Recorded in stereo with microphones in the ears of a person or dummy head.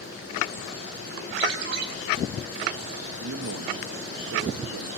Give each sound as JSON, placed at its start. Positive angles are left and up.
{"t": 1.4, "sound": "a ringtone", "side_deg": -70, "distance_m": 3.5}
{"t": 3.2, "sound": "a man speaking", "side_deg": -75, "distance_m": 1.3}